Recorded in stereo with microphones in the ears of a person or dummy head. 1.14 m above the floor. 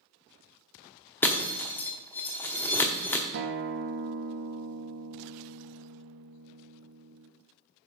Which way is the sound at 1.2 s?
15° left (ahead or behind).